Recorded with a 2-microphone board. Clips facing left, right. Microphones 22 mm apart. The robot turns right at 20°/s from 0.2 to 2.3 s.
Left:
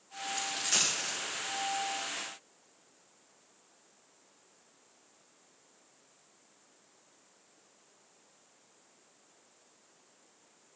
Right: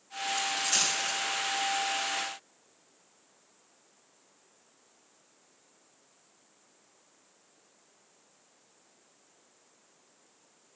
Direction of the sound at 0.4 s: 45° left (ahead or behind).